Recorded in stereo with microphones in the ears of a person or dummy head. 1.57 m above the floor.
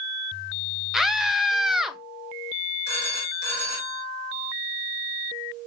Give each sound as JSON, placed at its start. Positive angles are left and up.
{"t": 0.9, "sound": "a scream", "side_deg": 0, "distance_m": 0.6}
{"t": 2.9, "sound": "a phone ringing", "side_deg": -55, "distance_m": 2.5}